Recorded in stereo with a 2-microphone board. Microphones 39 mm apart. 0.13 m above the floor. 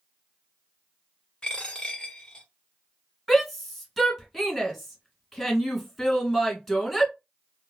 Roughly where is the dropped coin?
Centre.